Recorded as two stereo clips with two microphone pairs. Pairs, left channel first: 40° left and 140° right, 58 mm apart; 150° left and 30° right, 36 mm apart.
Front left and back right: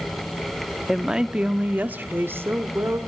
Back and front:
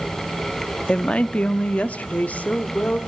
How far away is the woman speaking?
About 0.7 m.